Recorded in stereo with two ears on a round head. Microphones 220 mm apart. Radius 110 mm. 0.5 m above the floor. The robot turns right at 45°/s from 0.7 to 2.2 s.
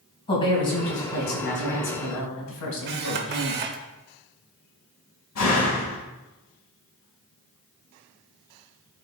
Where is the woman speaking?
20° left, 3 m; by 3.6 s 90° left, 3 m.